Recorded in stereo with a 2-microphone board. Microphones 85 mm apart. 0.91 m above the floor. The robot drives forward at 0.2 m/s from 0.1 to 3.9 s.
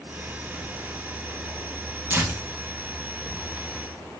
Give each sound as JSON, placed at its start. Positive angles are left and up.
{"t": 2.1, "sound": "tearing paper", "side_deg": -25, "distance_m": 0.9}